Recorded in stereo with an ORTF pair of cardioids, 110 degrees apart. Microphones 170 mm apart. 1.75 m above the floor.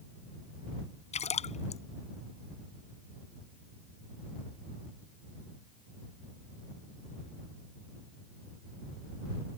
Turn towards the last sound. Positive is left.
turn(degrees=40)